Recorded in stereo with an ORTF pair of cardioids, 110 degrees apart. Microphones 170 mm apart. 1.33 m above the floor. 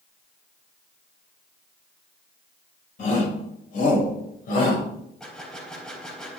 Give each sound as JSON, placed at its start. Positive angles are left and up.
{"t": 3.0, "sound": "a shout", "azimuth_deg": 45, "distance_m": 7.5}
{"t": 5.2, "sound": "a gunshot", "azimuth_deg": 5, "distance_m": 3.5}